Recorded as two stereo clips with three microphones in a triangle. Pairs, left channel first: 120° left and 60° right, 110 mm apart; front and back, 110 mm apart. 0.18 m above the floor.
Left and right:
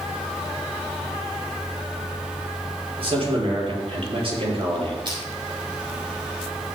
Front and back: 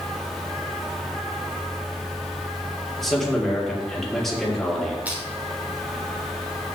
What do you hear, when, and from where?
3.0 s a man speaking: 85° right, 5.5 m
5.0 s crushing: 105° right, 4.5 m